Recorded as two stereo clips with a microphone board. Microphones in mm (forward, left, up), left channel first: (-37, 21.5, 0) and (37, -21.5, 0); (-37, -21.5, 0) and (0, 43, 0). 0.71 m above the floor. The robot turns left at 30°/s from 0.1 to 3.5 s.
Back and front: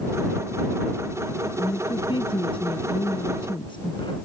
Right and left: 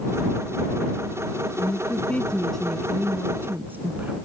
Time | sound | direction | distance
1.6 | a woman speaking | 175° right | ?